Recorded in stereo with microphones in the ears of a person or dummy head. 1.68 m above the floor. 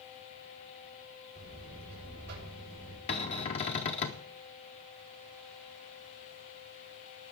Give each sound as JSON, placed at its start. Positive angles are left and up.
{"t": 1.4, "sound": "a buzzer", "side_deg": -60, "distance_m": 6.5}
{"t": 3.1, "sound": "a cupboard door", "side_deg": 25, "distance_m": 0.6}